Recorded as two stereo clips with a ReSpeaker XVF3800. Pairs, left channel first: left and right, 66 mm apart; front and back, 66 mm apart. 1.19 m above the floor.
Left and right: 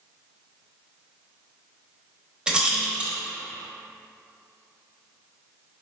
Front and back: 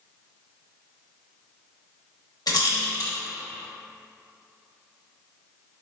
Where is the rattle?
15° right, 0.8 m.